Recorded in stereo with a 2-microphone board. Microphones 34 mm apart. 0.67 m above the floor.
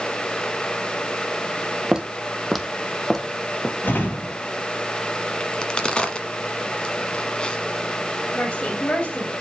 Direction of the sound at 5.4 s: 30° left (ahead or behind).